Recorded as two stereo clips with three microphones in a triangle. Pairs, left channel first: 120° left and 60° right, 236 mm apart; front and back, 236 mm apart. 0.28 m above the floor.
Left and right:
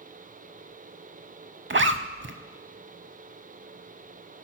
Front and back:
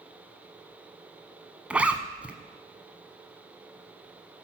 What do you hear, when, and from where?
1.7 s a zipper: 95° right, 0.6 m